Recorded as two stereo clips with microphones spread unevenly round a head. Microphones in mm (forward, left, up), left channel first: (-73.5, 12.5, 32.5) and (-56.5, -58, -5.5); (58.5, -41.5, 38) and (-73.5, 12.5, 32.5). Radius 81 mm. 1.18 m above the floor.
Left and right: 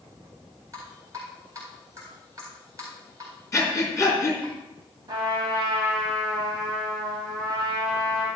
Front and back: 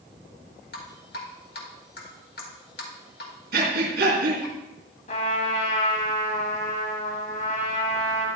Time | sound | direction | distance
0.7 | dripping | straight ahead | 2 m
3.5 | breathing | 160° left | 3.5 m
5.1 | a trumpet | 55° right | 3 m